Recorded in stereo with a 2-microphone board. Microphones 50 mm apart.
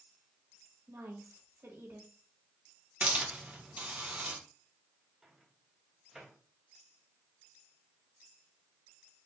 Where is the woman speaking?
60° right (ahead or behind), 2 m.